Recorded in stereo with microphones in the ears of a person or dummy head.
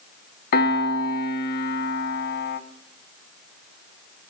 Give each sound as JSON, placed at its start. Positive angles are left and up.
{"t": 0.5, "sound": "a piano", "side_deg": 55, "distance_m": 0.8}